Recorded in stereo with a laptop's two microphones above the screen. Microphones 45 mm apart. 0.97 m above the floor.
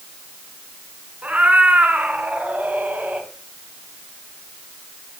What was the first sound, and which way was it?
A cat meowing, 35° right (ahead or behind).